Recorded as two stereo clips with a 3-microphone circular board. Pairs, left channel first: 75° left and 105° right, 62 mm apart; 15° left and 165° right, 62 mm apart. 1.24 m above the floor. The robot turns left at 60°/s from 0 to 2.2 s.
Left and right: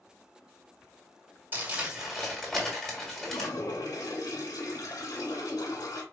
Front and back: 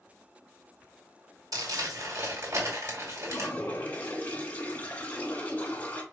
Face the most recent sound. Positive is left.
turn(degrees=80)